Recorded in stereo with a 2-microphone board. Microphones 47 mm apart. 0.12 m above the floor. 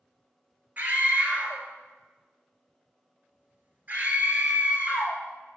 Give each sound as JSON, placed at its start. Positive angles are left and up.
{"t": 0.8, "sound": "a scream", "side_deg": -35, "distance_m": 1.6}